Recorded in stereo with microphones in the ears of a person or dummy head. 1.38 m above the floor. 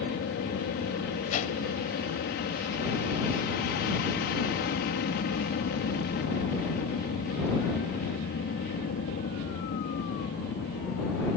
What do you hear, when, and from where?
0.0 s an aircraft: 50° left (ahead or behind)
1.3 s a whoosh: 45° left (ahead or behind)